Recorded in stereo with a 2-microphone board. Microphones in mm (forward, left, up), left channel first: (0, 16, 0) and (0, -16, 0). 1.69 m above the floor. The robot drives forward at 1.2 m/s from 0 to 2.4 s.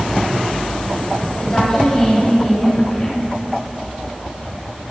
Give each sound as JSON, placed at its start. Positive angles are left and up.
{"t": 1.4, "sound": "a woman speaking", "side_deg": 20, "distance_m": 9.5}